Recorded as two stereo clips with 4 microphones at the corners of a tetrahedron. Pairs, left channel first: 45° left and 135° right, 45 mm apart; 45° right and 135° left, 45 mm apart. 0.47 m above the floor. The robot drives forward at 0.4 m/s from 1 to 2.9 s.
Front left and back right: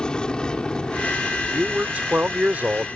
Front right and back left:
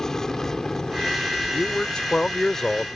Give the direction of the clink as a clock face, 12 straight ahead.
I don't hear a clink.